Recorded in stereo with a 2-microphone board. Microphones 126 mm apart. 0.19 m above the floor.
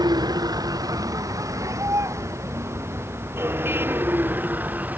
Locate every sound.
0.0 s a vehicle: 30° right (ahead or behind); by 5.0 s 10° right (ahead or behind)